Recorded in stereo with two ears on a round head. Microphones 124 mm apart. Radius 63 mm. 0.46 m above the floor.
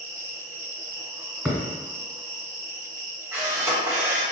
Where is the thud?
10° right (ahead or behind), 1.4 m.